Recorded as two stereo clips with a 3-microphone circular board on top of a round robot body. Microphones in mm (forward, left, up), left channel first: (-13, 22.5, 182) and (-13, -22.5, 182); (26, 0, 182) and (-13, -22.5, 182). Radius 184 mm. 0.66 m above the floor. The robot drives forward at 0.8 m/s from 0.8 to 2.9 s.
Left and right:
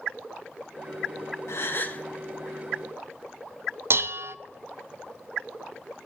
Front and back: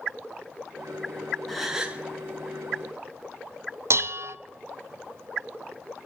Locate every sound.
1.5 s a gasp: 115° left, 0.6 m; by 2.0 s 145° left, 0.9 m
3.9 s dishes clattering: 125° right, 0.7 m